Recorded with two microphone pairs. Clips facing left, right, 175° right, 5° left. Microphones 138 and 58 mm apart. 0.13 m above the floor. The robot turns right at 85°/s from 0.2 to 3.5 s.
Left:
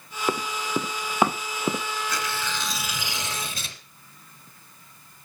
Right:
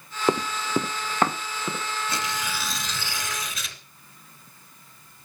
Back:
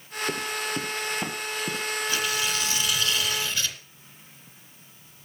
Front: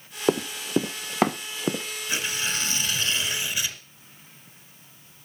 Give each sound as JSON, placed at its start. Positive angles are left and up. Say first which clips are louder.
{"t": 0.3, "sound": "running footsteps", "louder": "right 3 dB, front 7 dB", "azimuth_deg": -20, "distance_m": 1.0}
{"t": 2.1, "sound": "tearing paper", "louder": "even, front 2 dB", "azimuth_deg": -50, "distance_m": 1.8}